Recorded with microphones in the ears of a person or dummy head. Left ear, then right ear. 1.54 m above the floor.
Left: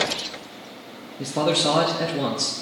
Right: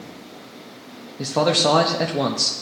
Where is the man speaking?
30° right (ahead or behind), 0.5 m.